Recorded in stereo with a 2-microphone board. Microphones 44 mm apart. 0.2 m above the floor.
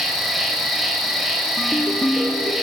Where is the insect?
5° right (ahead or behind), 2.5 m.